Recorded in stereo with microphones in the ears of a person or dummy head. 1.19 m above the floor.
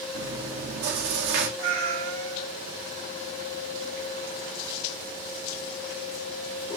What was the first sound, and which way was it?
Chewing, 60° right (ahead or behind).